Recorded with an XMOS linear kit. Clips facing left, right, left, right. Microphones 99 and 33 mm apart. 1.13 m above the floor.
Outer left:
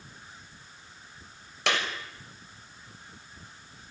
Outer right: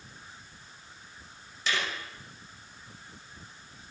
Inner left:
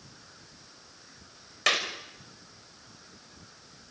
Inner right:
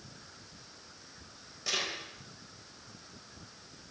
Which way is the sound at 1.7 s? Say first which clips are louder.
Outer left 3 dB, inner left 8 dB; 75° left (ahead or behind).